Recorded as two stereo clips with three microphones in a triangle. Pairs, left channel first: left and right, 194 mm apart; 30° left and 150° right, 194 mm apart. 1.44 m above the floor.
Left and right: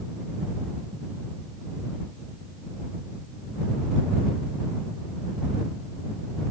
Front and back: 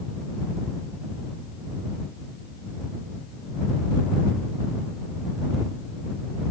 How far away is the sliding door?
I don't hear a sliding door.